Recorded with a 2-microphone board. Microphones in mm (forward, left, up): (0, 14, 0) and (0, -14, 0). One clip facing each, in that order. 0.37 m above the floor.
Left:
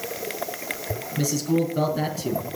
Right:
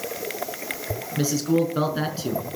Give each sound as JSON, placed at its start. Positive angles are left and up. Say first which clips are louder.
{"t": 1.2, "sound": "a man speaking", "louder": "right 2 dB", "side_deg": -35, "distance_m": 5.0}